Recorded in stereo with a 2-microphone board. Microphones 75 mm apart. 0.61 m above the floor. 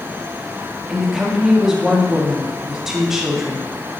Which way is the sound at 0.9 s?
5° right (ahead or behind).